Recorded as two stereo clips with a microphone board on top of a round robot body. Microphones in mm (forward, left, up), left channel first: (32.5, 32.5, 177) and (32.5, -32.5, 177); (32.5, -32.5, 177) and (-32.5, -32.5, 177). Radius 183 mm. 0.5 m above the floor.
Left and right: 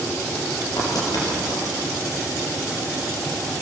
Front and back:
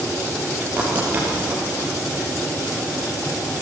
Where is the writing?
115° left, 6.5 m.